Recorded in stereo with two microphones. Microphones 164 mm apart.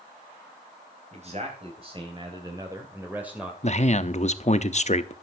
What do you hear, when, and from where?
1.1 s a man speaking: 45° right (ahead or behind), 3 m; by 3.5 s 5° right (ahead or behind), 2 m
3.6 s a man speaking: 45° left (ahead or behind), 0.8 m